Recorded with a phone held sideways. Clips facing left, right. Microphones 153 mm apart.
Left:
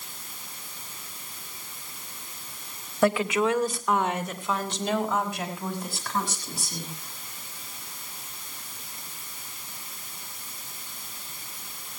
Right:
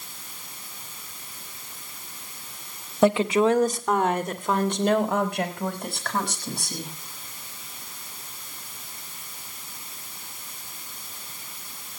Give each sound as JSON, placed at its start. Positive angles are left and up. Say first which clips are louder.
{"t": 3.0, "sound": "a woman speaking", "louder": "right 4 dB", "side_deg": -20, "distance_m": 1.6}